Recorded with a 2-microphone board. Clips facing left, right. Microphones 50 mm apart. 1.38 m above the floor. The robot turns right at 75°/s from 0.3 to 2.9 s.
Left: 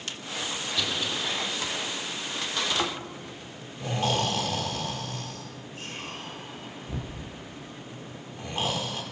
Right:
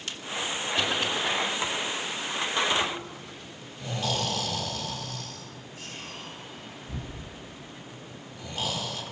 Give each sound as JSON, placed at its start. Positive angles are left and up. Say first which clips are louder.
{"t": 0.8, "sound": "a cough", "louder": "right 3 dB", "side_deg": -40, "distance_m": 4.0}
{"t": 2.8, "sound": "snoring", "louder": "even", "side_deg": 45, "distance_m": 4.5}